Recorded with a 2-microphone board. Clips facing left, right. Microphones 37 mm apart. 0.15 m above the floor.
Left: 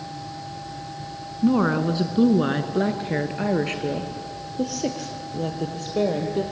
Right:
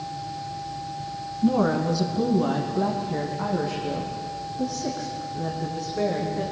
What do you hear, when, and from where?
1.4 s a woman speaking: 25° left (ahead or behind), 1.4 m; by 6.4 s 75° left (ahead or behind), 5 m